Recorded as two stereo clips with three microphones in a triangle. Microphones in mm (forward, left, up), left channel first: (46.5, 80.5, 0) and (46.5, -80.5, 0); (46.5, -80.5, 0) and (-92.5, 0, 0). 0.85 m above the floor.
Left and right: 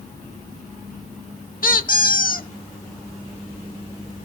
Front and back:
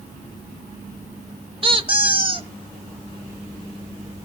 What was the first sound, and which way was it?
A squeak, 100° left.